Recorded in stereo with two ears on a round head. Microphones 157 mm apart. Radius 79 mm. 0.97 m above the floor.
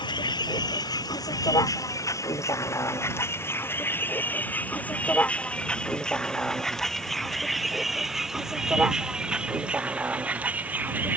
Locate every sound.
0.0 s a vehicle: 25° left (ahead or behind); by 11.2 s 10° right (ahead or behind)